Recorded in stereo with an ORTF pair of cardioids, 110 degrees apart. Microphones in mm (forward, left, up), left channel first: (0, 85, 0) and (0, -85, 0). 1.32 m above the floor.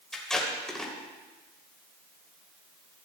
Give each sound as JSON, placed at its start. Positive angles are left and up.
{"t": 0.1, "sound": "tape being pulled", "azimuth_deg": 5, "distance_m": 3.0}